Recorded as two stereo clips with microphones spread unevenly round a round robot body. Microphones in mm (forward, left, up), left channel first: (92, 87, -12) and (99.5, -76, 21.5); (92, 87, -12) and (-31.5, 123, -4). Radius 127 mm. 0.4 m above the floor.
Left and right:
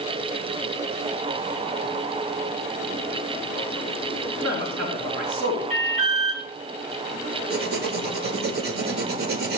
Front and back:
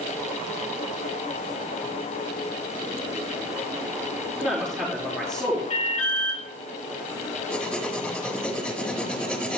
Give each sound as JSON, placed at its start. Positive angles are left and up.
{"t": 4.4, "sound": "a man speaking", "azimuth_deg": -115, "distance_m": 4.5}
{"t": 5.7, "sound": "an alarm", "azimuth_deg": -40, "distance_m": 3.0}
{"t": 7.5, "sound": "writing", "azimuth_deg": -100, "distance_m": 0.9}